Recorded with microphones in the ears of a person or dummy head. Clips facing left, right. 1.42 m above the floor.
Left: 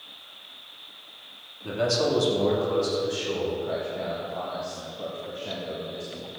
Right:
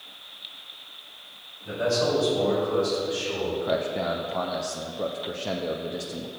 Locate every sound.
1.6 s a man speaking: 65° left (ahead or behind), 2.5 m; by 3.5 s 75° left (ahead or behind), 3.5 m
3.6 s a man speaking: 60° right (ahead or behind), 0.6 m